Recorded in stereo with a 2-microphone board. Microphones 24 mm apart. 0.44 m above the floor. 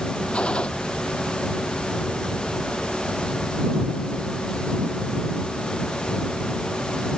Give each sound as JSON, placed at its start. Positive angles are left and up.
{"t": 0.3, "sound": "a gunshot", "side_deg": 45}